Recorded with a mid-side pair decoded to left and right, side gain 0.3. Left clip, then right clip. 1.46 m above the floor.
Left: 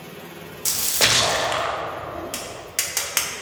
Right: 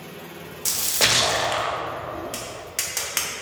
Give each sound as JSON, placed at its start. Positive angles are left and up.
{"t": 0.7, "sound": "a splash", "azimuth_deg": 10, "distance_m": 1.3}
{"t": 2.3, "sound": "tapping", "azimuth_deg": 30, "distance_m": 1.5}